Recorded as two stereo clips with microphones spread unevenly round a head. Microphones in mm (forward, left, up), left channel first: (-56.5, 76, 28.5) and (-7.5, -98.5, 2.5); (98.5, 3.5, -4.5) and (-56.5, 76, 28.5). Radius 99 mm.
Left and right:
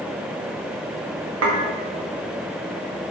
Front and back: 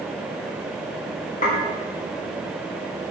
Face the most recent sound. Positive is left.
turn(degrees=-80)